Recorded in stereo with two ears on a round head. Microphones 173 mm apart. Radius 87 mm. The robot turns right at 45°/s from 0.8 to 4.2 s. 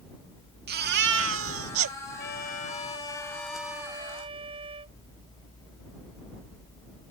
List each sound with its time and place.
0.7 s a baby crying: 125° right; by 2.0 s 70° right
2.2 s a trumpet: 120° left; by 5.0 s 150° right